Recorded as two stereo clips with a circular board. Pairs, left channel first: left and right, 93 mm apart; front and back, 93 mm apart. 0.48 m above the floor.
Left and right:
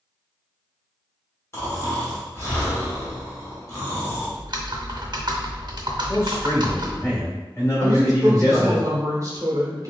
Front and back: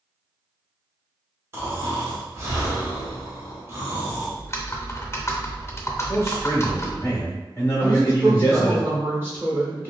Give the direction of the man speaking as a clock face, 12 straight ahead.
10 o'clock.